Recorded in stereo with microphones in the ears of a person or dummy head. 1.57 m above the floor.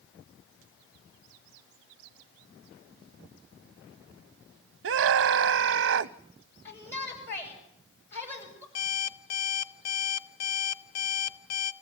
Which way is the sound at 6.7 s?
10° left (ahead or behind).